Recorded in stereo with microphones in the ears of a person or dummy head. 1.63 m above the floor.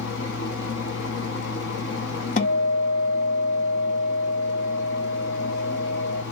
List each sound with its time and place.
0.0 s a fan: 65° left (ahead or behind), 1.4 m
2.4 s a guitar: 50° left (ahead or behind), 1.2 m